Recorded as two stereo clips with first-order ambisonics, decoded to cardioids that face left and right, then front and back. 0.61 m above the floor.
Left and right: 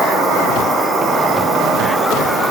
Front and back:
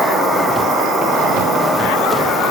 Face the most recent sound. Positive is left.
turn(degrees=-60)